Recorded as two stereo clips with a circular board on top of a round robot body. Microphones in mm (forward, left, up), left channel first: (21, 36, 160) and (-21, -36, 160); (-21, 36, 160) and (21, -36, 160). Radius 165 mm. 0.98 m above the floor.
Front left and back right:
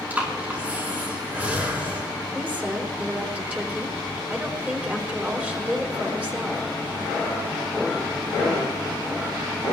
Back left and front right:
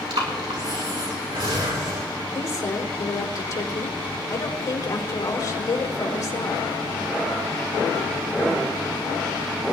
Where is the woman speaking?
170° left, 3.5 m.